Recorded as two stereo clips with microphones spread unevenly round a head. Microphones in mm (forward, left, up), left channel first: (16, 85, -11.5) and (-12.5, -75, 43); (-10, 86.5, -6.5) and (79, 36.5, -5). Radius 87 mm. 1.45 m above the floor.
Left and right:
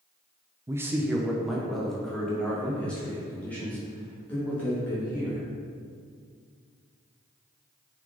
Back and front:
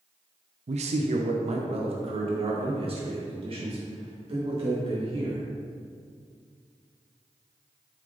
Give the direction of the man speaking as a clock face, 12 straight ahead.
1 o'clock.